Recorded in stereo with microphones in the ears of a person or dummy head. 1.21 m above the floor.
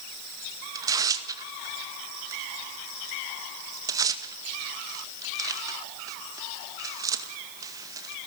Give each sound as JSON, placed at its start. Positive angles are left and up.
{"t": 0.8, "sound": "tearing paper", "side_deg": -15, "distance_m": 1.8}